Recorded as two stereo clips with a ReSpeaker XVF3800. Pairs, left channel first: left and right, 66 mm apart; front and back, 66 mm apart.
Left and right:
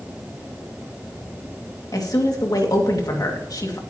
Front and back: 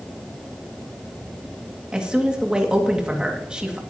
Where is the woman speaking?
100° left, 2 m.